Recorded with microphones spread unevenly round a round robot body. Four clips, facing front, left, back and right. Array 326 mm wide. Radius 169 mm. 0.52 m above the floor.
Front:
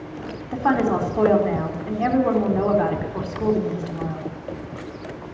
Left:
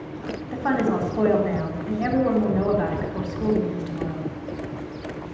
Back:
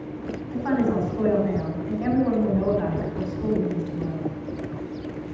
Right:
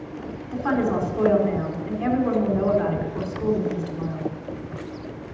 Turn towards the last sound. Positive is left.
turn(degrees=15)